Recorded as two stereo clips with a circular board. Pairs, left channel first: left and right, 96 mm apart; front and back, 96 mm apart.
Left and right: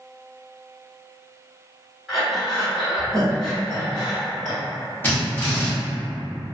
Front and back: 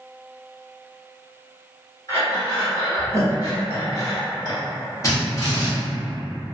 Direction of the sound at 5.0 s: 35° left.